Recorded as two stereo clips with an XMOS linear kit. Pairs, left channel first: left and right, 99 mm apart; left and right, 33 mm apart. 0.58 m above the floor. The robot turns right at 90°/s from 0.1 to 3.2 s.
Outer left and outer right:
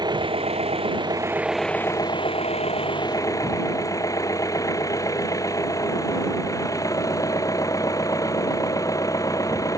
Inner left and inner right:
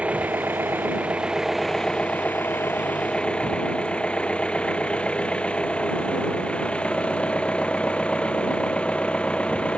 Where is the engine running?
135° right; by 9.8 s 145° left.